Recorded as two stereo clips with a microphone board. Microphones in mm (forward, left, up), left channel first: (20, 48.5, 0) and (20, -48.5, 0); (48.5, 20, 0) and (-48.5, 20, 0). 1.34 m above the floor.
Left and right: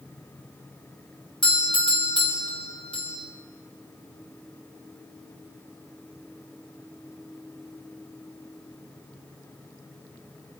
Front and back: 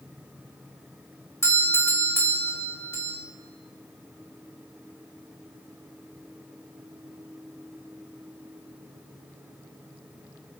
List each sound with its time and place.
1.4 s a doorbell: 65° left, 4 m